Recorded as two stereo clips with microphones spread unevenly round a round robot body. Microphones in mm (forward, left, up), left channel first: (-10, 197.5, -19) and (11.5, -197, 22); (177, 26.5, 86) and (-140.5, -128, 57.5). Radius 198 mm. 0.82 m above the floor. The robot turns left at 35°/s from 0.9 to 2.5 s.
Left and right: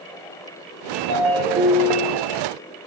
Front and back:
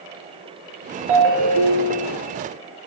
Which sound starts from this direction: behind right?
A ringtone, at 1.1 s.